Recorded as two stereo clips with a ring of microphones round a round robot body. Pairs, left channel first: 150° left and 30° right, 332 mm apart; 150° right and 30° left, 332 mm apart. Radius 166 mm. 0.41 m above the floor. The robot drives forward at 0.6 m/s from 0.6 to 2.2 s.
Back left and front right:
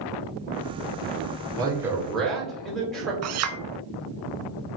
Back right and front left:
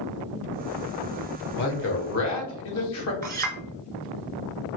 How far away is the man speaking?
About 1.3 m.